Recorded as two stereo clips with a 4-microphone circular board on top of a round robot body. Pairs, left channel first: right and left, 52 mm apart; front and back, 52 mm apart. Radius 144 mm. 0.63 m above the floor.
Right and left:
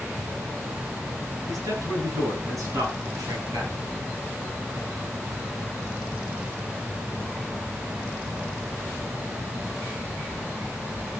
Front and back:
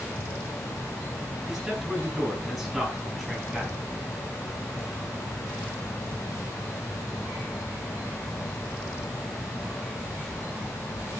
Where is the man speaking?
90° left, 9.5 m.